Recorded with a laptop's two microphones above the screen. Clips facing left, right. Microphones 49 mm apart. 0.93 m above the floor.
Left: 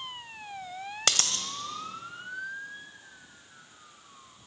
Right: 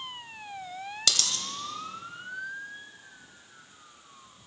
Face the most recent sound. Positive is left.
turn(degrees=40)  # may be behind; listen again after turning